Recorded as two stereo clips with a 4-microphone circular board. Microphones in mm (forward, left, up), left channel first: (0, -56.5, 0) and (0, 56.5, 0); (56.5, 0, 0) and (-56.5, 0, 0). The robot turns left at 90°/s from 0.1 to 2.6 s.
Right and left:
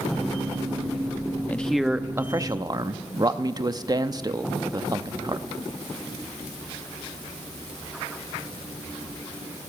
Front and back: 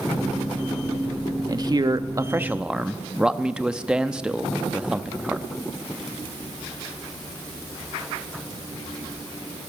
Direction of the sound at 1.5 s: 155° right.